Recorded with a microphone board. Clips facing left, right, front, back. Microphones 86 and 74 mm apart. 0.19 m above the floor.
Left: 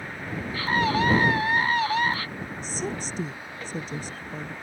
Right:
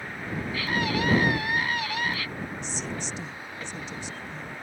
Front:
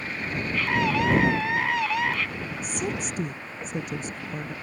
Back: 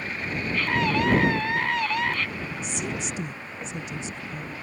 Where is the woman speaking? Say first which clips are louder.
Left 3 dB, front 3 dB; 40° left.